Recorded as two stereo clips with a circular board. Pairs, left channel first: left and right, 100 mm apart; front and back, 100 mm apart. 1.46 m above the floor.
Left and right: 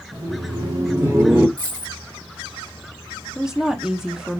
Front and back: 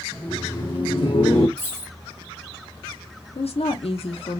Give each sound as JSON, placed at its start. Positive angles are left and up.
{"t": 0.1, "sound": "laughter", "azimuth_deg": -75, "distance_m": 1.3}
{"t": 1.6, "sound": "a dropped coin", "azimuth_deg": -140, "distance_m": 1.9}
{"t": 3.4, "sound": "a woman speaking", "azimuth_deg": -5, "distance_m": 0.5}